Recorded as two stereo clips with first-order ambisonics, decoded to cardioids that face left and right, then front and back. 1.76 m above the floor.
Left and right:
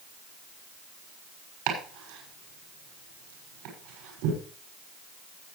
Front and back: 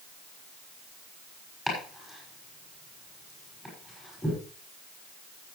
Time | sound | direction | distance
1.7 | chopping | 85° right | 6 m